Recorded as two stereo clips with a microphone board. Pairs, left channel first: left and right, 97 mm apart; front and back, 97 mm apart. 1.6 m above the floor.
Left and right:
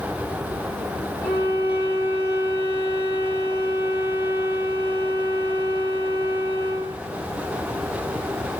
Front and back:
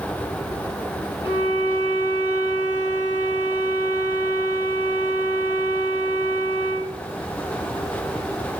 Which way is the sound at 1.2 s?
45° left.